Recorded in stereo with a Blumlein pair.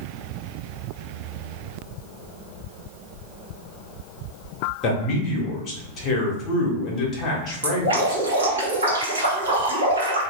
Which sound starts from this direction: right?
Dripping, at 7.6 s.